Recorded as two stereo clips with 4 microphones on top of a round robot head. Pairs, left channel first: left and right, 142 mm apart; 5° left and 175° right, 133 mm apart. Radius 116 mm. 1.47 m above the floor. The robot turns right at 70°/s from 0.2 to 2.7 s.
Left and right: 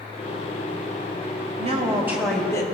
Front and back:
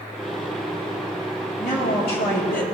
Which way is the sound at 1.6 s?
50° right.